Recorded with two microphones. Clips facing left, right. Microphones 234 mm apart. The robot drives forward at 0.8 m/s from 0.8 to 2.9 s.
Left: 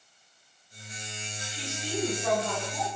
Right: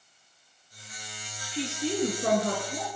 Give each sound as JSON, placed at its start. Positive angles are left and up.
{"t": 1.5, "sound": "a woman speaking", "side_deg": -65, "distance_m": 4.5}